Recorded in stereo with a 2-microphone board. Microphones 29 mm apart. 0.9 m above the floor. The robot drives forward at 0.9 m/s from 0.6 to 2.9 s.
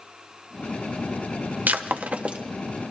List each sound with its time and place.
1.7 s breaking glass: 85° right, 0.5 m; by 2.4 s 40° right (ahead or behind), 0.8 m